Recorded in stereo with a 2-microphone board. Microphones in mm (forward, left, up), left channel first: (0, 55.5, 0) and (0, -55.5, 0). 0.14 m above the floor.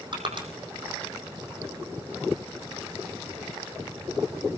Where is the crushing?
45° right (ahead or behind), 4.5 m.